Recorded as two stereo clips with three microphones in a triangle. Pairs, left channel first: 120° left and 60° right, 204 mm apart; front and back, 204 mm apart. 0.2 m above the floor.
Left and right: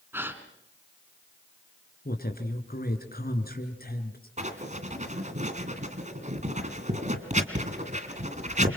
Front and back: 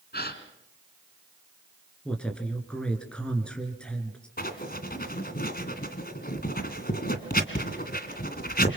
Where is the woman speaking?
85° left, 3.5 m.